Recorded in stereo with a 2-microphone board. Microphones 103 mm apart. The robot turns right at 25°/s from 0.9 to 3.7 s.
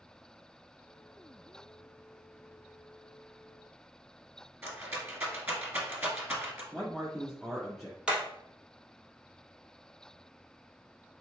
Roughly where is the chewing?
No chewing in this recording.